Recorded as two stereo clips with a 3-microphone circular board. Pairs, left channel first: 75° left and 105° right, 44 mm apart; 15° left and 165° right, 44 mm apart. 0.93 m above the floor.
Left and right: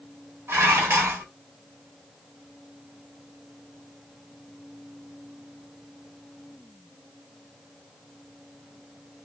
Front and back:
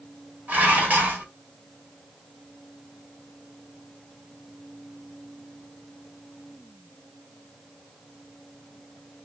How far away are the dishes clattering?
About 1.3 m.